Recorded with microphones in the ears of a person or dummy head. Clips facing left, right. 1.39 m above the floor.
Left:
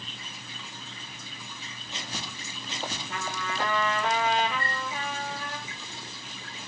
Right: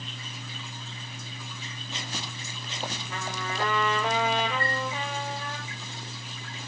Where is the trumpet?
85° right, 5 m.